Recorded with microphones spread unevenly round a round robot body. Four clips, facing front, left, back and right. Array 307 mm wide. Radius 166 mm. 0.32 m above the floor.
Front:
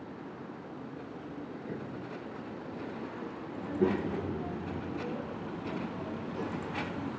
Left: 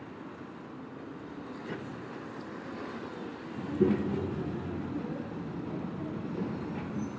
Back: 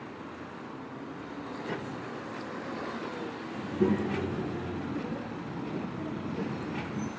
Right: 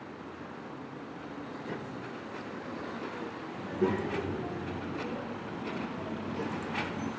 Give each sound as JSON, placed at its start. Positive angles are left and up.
{"t": 3.6, "sound": "a child speaking", "azimuth_deg": 110, "distance_m": 2.5}